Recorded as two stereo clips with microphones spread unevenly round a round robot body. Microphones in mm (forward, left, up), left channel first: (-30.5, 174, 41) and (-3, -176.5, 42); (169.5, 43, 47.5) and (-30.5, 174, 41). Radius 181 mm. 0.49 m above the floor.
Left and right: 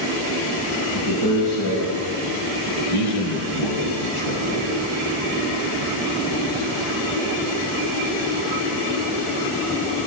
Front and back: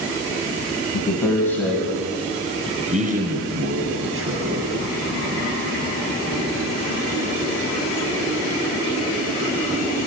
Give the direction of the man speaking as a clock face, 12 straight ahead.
11 o'clock.